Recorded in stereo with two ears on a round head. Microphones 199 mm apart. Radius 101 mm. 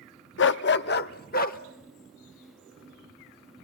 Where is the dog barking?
55° left (ahead or behind), 0.6 m; by 1.6 s 40° left (ahead or behind), 1.2 m.